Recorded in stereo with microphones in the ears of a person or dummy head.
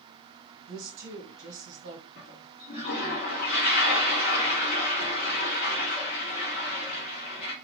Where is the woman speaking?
65° right (ahead or behind), 1.9 m.